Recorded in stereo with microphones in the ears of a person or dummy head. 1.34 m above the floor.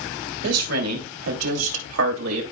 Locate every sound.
0.4 s a woman speaking: 85° right, 3 m; by 2.4 s 75° right (ahead or behind), 2.5 m